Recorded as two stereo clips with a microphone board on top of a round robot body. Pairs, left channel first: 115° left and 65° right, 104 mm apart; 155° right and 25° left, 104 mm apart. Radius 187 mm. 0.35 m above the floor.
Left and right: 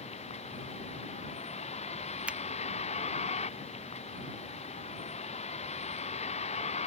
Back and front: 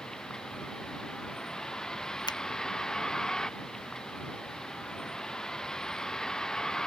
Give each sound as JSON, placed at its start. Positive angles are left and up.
{"t": 0.0, "sound": "a vehicle", "azimuth_deg": 120}
{"t": 2.3, "sound": "a finger snap", "azimuth_deg": -140}